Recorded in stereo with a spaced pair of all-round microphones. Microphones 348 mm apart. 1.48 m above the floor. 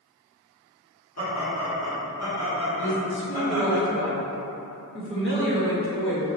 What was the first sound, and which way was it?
Laughter, 45° left (ahead or behind).